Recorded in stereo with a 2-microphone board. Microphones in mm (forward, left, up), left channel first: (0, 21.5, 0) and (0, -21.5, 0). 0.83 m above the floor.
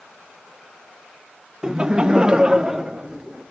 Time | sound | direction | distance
1.6 | laughter | 15° right (ahead or behind) | 0.6 m